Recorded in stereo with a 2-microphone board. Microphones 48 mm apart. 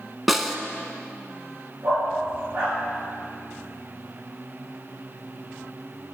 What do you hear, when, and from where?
0.3 s a snare drum: centre (ahead or behind), 0.6 m
1.8 s a dog barking: 50° right (ahead or behind), 4 m